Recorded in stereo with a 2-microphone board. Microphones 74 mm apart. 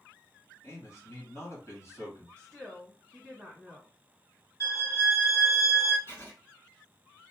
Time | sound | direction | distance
0.6 | a man speaking | 45° left (ahead or behind) | 1.6 m
2.4 | a woman speaking | 15° left (ahead or behind) | 1.2 m
4.6 | a violin | 45° left (ahead or behind) | 1.7 m
6.1 | writing | 35° left (ahead or behind) | 1.8 m